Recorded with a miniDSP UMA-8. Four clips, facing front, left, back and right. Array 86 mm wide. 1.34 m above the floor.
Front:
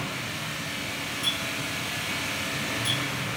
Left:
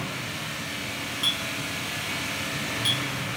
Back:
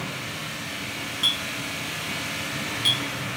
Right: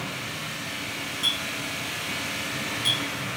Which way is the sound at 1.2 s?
170° left.